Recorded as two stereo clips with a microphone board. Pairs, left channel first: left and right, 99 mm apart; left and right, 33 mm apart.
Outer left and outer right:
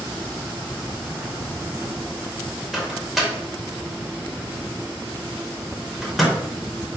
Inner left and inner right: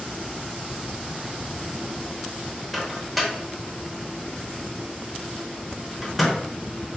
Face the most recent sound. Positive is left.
turn(degrees=0)  # may be behind; listen again after turning